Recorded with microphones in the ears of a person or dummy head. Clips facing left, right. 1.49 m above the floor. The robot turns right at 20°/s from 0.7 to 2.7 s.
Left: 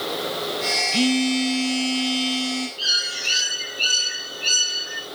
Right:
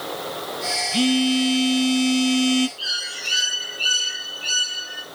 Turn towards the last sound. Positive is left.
turn(degrees=20)  # may be behind; listen again after turning